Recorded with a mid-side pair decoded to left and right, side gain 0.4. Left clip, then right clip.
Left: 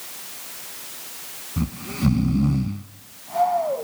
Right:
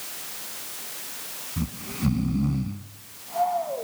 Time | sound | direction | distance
1.6 | snoring | 45° left | 1.3 m